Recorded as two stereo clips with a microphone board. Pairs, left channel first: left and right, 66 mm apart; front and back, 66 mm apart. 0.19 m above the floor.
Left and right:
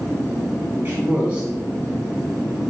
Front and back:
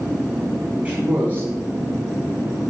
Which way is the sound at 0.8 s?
130° right.